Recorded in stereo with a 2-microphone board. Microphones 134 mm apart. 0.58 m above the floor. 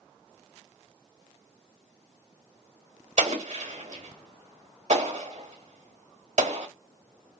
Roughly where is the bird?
No bird in this recording.